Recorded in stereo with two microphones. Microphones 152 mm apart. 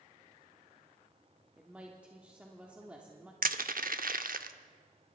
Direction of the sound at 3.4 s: 70° right (ahead or behind).